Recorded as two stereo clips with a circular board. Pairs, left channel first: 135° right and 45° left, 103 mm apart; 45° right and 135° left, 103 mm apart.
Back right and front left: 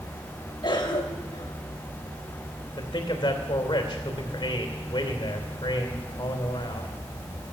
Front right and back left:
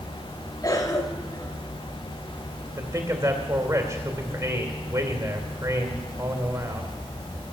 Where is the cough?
95° right, 2.5 m.